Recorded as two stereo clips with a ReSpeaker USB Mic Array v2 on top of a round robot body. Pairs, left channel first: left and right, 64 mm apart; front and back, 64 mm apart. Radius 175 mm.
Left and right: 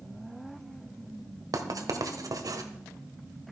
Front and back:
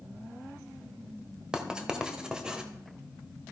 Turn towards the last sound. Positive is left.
turn(degrees=-100)